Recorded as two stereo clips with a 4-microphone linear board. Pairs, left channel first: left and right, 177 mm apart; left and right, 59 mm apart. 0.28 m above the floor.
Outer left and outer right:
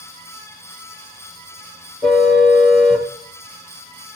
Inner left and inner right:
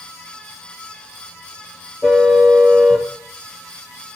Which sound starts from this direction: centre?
A car horn, at 2.0 s.